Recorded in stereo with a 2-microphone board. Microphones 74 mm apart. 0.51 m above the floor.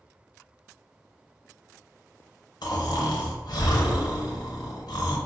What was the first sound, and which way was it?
Snoring, 85° left.